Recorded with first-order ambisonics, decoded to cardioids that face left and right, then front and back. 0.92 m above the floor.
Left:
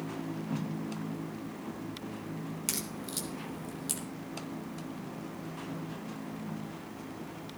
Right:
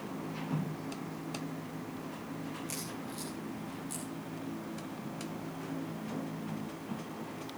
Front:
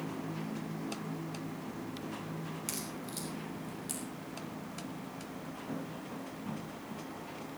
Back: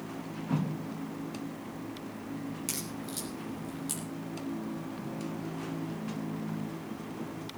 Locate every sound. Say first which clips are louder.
2.7 s a crack: left 3 dB, back 2 dB; 100° left, 3 m